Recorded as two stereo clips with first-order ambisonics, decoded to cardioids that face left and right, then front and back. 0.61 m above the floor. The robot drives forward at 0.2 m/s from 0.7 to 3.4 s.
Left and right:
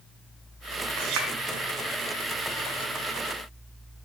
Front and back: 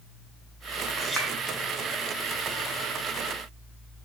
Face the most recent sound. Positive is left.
turn(degrees=-125)